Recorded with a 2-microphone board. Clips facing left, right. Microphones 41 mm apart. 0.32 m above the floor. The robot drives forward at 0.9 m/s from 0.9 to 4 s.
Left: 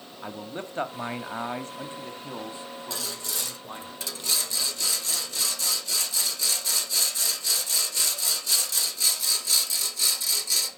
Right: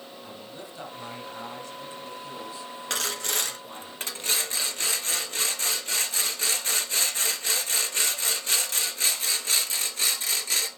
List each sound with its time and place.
0.2 s a man speaking: 50° left (ahead or behind), 1.8 m; by 3.9 s 25° left (ahead or behind), 3 m
2.9 s sawing: 70° right (ahead or behind), 1.5 m; by 10.7 s 45° right (ahead or behind), 2 m